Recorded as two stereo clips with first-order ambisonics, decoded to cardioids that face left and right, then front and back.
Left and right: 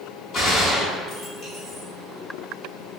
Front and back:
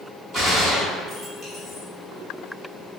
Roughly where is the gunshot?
Behind left.